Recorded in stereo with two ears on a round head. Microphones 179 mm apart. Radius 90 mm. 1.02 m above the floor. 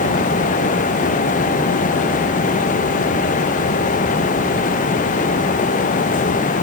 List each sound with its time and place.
Only background noise.